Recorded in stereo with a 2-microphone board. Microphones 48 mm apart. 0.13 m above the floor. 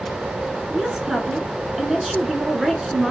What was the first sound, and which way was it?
A woman speaking, 10° right (ahead or behind).